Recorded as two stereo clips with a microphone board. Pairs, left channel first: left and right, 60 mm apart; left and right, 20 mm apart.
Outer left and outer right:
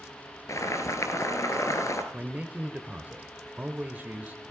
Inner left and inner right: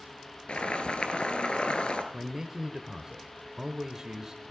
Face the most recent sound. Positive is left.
turn(degrees=-25)  # may be behind; listen again after turning